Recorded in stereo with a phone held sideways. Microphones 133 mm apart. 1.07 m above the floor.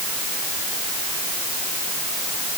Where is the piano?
No piano in this recording.